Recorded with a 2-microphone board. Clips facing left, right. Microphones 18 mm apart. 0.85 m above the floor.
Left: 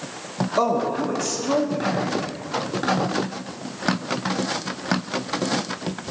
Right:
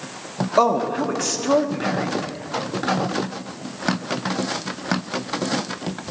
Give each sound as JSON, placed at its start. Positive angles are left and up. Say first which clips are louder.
{"t": 0.6, "sound": "a man speaking", "louder": "right 3 dB", "side_deg": -25, "distance_m": 1.0}